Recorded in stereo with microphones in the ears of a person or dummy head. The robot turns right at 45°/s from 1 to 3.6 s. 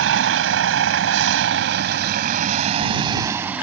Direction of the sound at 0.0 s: 85° right.